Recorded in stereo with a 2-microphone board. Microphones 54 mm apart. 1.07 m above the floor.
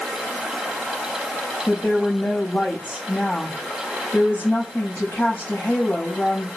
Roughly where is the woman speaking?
Left.